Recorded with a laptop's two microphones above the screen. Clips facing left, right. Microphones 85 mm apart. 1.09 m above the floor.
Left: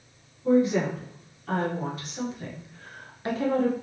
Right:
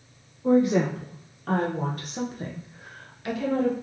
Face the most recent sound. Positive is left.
turn(degrees=45)  # may be behind; listen again after turning